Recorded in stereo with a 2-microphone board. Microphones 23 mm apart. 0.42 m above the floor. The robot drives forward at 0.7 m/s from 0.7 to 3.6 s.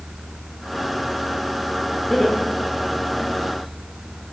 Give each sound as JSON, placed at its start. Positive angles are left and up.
{"t": 2.1, "sound": "laughter", "side_deg": 15, "distance_m": 1.4}